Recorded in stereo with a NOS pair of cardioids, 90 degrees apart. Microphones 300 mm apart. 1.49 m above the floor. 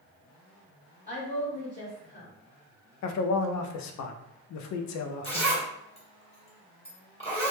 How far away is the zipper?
About 1.2 m.